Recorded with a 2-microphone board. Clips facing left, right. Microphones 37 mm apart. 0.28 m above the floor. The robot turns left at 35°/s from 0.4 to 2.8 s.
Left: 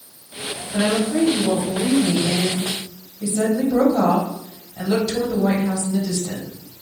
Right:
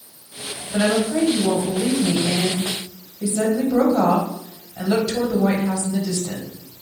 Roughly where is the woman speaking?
Centre.